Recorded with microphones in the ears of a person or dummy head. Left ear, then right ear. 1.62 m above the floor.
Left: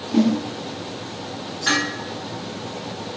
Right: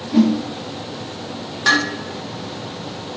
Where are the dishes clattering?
60° right (ahead or behind), 1.2 m.